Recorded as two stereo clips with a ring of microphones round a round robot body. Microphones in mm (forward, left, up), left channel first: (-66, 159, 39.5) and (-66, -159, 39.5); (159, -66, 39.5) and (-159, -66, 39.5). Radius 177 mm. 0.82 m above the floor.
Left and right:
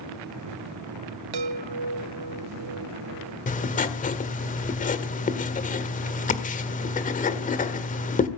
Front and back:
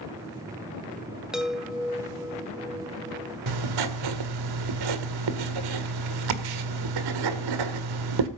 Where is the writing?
155° left, 1.8 m.